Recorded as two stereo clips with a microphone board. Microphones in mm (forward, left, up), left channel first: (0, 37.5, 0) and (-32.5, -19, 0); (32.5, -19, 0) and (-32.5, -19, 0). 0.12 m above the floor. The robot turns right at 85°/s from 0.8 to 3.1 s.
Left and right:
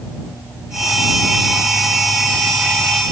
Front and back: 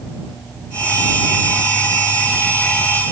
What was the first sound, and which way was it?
Only background noise.